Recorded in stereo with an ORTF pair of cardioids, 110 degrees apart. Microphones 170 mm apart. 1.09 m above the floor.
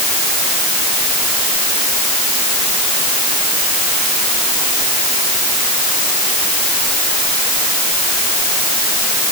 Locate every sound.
Only background noise.